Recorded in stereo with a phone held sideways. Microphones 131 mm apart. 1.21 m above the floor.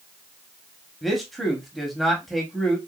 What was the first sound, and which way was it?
A man speaking, centre (ahead or behind).